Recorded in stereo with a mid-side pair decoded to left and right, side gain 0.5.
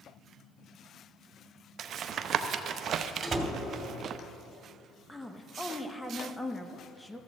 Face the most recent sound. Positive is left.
turn(degrees=5)